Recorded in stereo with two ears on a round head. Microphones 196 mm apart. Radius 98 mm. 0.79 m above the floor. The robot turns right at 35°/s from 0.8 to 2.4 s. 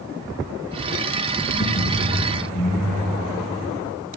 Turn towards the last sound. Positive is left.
turn(degrees=165)